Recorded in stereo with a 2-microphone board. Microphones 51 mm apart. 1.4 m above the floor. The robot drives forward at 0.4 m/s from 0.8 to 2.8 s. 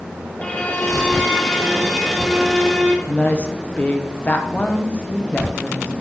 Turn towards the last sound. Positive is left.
turn(degrees=30)  # may be behind; listen again after turning